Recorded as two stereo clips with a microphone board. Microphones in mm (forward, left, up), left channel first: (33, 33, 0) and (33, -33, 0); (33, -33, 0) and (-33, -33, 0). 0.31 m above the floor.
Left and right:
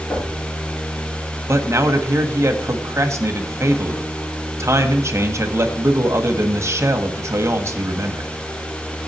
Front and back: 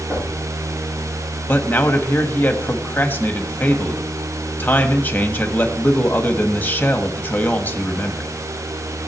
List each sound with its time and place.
0.1 s knocking: 120° left, 6.5 m
1.5 s a man speaking: 60° right, 1.4 m